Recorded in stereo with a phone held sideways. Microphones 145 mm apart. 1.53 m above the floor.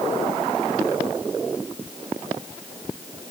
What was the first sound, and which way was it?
Only background noise.